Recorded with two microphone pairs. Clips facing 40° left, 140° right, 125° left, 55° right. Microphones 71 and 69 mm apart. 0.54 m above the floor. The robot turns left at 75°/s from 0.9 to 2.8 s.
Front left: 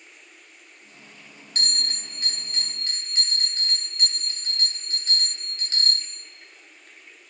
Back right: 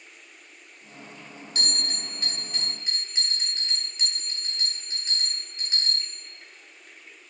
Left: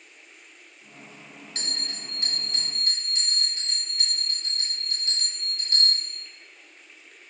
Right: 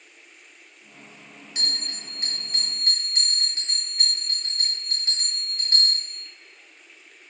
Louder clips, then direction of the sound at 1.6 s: Front left 1 dB, right 3 dB; 25° left.